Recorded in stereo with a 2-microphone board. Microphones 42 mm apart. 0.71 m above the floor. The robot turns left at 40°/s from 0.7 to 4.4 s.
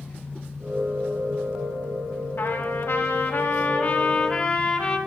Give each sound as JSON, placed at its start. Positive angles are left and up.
{"t": 2.4, "sound": "a trumpet", "azimuth_deg": 100, "distance_m": 2.0}